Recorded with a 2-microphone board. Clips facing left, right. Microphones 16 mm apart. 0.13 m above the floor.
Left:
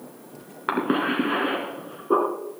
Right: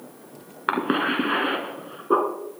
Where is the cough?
25° right (ahead or behind), 1.7 m.